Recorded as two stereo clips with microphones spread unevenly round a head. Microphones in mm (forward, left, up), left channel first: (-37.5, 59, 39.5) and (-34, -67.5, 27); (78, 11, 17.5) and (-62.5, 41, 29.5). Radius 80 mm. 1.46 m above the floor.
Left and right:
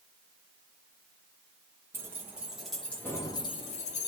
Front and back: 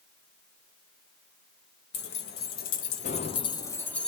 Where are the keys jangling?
15° right, 1.2 m; by 4.1 s 75° left, 0.8 m.